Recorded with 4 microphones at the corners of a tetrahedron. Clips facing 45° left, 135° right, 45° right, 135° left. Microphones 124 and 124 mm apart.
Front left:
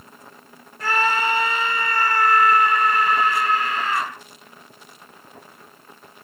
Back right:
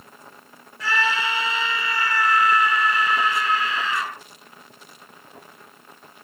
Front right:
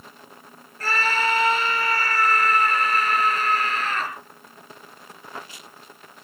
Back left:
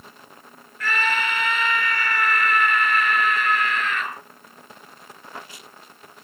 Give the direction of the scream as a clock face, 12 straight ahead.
12 o'clock.